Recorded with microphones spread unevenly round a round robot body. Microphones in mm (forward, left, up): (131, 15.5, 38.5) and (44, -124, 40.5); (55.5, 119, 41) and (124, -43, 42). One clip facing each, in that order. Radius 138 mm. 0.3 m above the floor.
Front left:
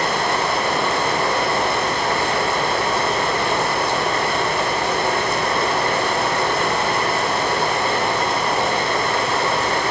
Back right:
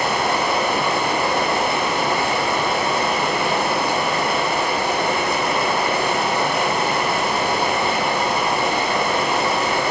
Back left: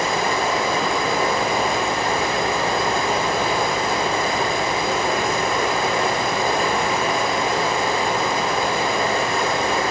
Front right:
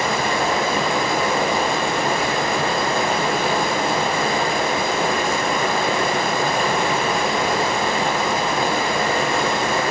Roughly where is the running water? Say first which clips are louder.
Even, even; ahead right.